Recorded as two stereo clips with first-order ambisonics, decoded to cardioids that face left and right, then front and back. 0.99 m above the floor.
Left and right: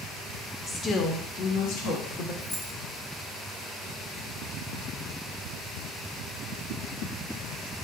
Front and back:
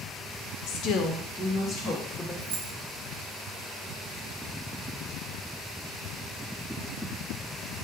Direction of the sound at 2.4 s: Straight behind.